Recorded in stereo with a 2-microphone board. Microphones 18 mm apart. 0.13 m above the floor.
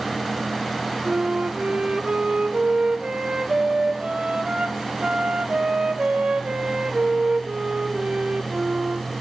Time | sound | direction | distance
1.1 | a flute | 70° right (ahead or behind) | 1.2 m